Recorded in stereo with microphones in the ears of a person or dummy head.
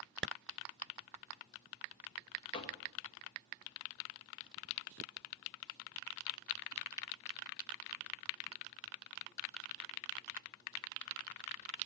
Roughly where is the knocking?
Left.